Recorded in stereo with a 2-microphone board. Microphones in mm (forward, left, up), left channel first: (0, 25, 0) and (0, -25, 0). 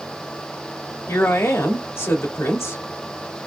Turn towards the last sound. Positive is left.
turn(degrees=65)  # may be behind; listen again after turning